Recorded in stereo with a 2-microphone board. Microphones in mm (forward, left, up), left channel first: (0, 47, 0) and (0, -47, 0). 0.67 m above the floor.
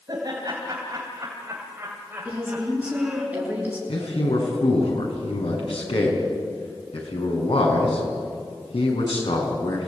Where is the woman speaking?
15° right (ahead or behind), 9 m.